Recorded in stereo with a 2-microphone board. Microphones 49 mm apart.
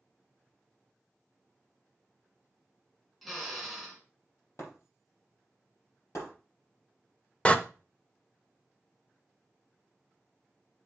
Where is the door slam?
20° left (ahead or behind), 0.7 m.